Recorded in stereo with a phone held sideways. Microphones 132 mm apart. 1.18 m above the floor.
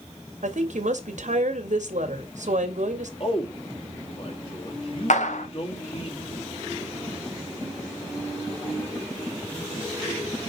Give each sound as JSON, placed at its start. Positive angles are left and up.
{"t": 0.4, "sound": "a woman speaking", "side_deg": -70, "distance_m": 1.9}
{"t": 3.2, "sound": "a man speaking", "side_deg": 45, "distance_m": 2.0}
{"t": 5.1, "sound": "a clap", "side_deg": 70, "distance_m": 1.0}